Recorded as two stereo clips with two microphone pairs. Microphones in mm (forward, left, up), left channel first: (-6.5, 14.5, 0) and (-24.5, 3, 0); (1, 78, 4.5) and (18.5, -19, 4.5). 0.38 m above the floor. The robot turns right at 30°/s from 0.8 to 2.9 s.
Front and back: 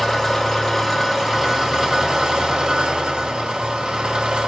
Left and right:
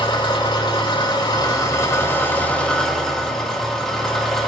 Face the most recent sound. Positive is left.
turn(degrees=-175)